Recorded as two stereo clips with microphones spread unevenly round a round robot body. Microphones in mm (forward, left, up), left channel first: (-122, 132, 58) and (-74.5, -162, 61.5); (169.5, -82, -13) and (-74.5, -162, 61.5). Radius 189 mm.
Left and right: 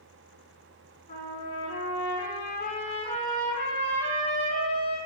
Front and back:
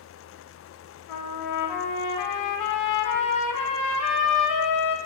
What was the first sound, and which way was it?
A trumpet, 25° left.